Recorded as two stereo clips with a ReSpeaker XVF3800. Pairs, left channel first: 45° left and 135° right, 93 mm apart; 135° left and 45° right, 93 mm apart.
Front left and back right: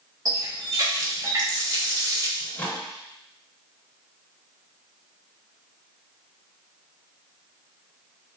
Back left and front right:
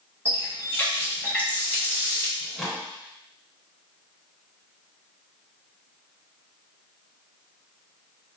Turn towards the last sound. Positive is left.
turn(degrees=45)